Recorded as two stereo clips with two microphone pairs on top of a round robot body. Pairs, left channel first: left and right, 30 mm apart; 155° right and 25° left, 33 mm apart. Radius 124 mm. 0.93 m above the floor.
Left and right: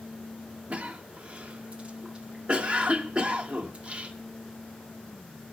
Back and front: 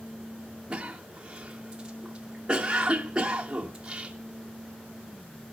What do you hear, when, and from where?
0.7 s a cough: 40° right, 1.3 m